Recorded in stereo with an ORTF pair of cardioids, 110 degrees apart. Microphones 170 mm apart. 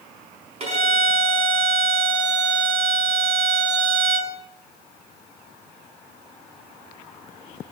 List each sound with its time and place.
0.6 s a violin: 35° right, 4.5 m